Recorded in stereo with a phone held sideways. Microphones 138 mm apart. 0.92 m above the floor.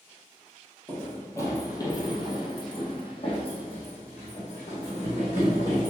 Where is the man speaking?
No man speaking in this recording.